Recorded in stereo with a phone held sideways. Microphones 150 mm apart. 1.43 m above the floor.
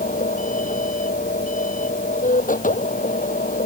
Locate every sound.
0.0 s a machine running: 60° left (ahead or behind)